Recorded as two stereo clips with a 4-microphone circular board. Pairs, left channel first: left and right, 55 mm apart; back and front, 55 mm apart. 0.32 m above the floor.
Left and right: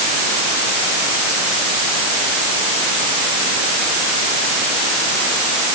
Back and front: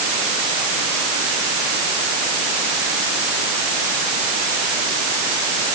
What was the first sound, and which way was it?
Only background noise.